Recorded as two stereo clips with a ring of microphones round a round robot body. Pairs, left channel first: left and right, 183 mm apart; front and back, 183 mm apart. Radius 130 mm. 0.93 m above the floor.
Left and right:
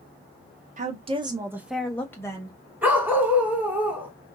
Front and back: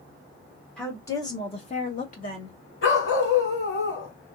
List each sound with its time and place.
0.8 s a woman speaking: 85° right, 0.9 m; by 2.6 s 25° left, 1.2 m
2.8 s a dog barking: 10° right, 1.9 m